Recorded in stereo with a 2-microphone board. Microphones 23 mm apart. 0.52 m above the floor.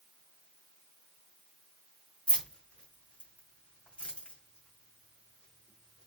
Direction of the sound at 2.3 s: 80° left.